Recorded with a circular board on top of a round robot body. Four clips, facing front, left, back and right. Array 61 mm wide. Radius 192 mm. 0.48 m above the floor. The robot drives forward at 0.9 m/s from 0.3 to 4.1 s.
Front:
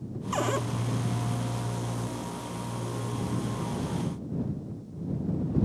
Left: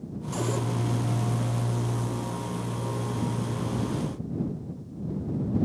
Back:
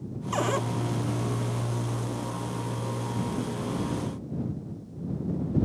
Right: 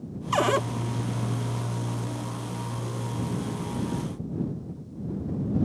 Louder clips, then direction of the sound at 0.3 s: Right 7 dB, back 1 dB; 90° right.